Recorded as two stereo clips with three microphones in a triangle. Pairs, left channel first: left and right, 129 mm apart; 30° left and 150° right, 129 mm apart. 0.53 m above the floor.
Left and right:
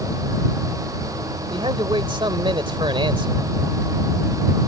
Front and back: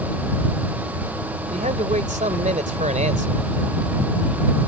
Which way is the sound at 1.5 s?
140° right.